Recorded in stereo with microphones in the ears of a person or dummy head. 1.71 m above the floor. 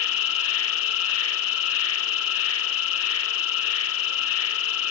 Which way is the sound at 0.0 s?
70° left (ahead or behind).